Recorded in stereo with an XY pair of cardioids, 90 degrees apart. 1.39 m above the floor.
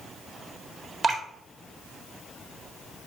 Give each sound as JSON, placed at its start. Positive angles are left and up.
{"t": 1.0, "sound": "dripping", "azimuth_deg": -45, "distance_m": 1.6}